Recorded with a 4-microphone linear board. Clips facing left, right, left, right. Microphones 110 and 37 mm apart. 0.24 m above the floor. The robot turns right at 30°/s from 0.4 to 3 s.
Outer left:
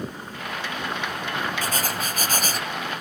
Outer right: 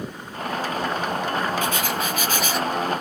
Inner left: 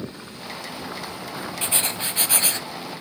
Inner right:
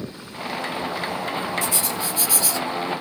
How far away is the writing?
About 0.6 m.